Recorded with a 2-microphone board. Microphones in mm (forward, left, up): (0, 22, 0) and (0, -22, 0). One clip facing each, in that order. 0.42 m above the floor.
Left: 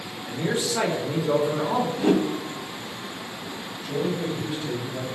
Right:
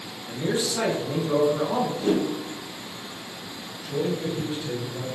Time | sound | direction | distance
0.3 | a man speaking | 30° left (ahead or behind) | 1.0 m
2.0 | a whoosh | 65° left (ahead or behind) | 0.6 m
3.8 | a man speaking | 35° left (ahead or behind) | 1.5 m